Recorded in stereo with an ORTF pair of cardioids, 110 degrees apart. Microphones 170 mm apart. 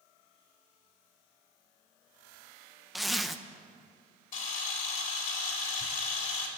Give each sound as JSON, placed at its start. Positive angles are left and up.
{"t": 3.0, "sound": "a zipper", "azimuth_deg": 0, "distance_m": 0.7}
{"t": 4.3, "sound": "a camera shutter", "azimuth_deg": 55, "distance_m": 3.5}